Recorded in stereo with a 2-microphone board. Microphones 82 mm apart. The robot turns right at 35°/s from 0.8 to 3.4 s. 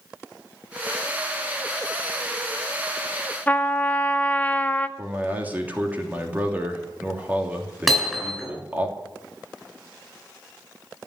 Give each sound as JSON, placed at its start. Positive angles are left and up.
{"t": 3.5, "sound": "a trumpet", "side_deg": 20, "distance_m": 0.8}
{"t": 5.0, "sound": "a man speaking", "side_deg": -20, "distance_m": 3.0}
{"t": 7.9, "sound": "hammering", "side_deg": 0, "distance_m": 7.5}